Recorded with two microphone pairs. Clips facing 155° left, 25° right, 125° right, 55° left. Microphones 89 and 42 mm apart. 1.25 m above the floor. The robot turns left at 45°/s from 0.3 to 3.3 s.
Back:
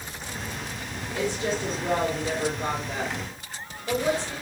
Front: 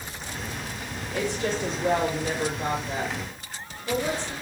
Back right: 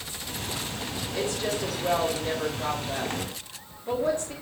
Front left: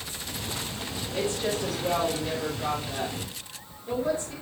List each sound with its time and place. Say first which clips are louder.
1.1 s a woman speaking: even, front left 1 dB; 5° left, 4 m; by 4.3 s 90° right, 4 m